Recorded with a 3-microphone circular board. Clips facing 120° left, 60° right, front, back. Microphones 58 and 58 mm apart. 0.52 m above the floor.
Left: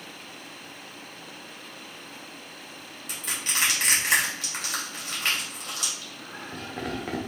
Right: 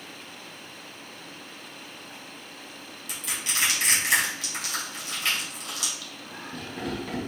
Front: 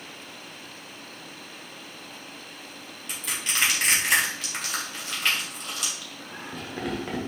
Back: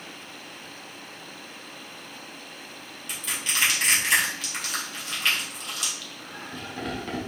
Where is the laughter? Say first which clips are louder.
Even, even; 75° left, 1.3 m.